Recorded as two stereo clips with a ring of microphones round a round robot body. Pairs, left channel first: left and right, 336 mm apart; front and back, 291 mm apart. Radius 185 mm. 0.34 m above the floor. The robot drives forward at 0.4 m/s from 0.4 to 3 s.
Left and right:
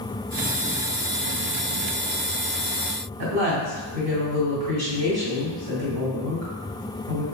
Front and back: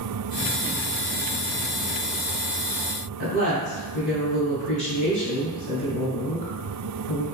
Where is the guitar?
I don't hear a guitar.